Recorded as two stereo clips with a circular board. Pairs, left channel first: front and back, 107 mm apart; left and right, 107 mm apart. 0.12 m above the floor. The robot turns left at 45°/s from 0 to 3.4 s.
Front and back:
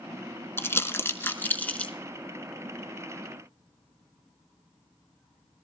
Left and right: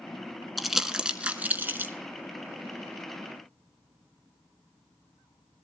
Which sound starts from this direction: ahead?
Crumpling, at 0.6 s.